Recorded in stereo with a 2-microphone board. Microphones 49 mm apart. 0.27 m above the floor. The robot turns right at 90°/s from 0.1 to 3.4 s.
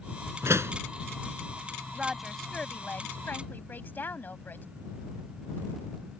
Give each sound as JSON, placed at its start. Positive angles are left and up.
{"t": 0.4, "sound": "a door slam", "azimuth_deg": -105}
{"t": 1.9, "sound": "a woman speaking", "azimuth_deg": -30}